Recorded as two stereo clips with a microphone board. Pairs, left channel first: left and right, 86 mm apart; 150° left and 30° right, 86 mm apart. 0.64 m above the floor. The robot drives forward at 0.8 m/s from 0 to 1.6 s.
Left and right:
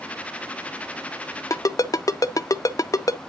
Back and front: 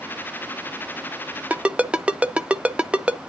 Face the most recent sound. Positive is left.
turn(degrees=45)